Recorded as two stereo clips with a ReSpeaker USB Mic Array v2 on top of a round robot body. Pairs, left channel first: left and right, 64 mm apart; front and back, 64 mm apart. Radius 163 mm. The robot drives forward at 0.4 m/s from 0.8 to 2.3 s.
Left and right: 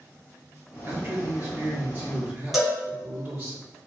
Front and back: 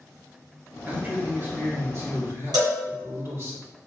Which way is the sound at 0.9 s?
130° right.